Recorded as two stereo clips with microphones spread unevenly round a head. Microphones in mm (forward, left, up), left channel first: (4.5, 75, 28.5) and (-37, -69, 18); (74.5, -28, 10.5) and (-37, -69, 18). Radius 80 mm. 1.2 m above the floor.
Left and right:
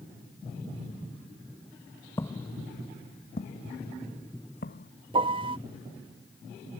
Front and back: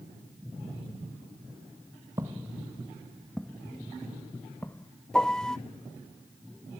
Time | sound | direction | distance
2.2 | footsteps | 140° left | ?
5.1 | a piano | 60° right | ?